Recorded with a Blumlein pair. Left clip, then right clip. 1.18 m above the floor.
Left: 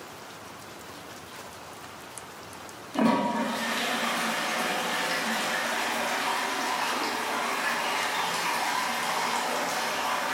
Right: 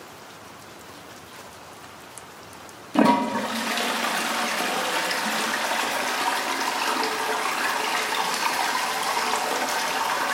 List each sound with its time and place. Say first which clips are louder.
3.0 s a toilet flushing: right 5 dB; 65° right, 0.5 m